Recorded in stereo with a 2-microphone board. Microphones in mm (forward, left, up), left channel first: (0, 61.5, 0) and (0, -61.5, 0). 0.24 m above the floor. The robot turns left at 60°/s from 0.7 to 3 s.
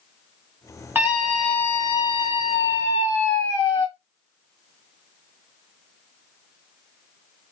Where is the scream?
160° right, 1.7 m; by 3.9 s 80° left, 1.7 m.